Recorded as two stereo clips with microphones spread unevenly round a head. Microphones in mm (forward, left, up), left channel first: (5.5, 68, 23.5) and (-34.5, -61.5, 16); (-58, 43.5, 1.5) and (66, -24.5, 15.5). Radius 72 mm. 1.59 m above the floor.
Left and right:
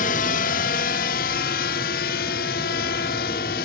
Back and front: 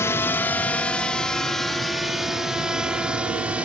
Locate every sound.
0.0 s a drone: 80° left; by 3.7 s 50° left